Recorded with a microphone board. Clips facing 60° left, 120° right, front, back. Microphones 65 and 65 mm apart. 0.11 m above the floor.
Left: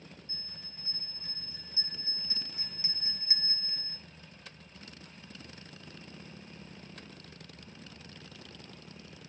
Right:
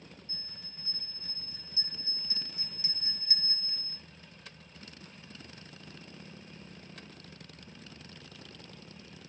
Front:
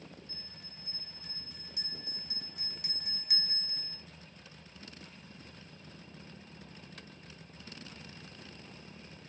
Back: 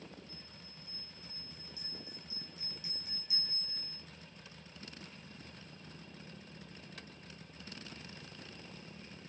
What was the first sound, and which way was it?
A bell, 5° right.